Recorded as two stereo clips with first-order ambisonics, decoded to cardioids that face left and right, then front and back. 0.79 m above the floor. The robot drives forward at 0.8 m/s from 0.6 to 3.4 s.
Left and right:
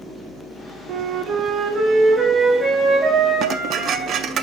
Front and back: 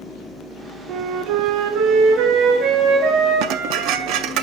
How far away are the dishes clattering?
About 0.6 m.